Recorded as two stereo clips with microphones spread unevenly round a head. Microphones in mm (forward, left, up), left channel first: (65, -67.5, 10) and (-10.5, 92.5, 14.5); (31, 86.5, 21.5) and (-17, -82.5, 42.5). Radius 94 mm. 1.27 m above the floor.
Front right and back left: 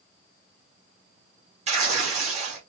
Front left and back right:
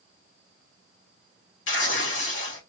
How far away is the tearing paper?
About 1.9 m.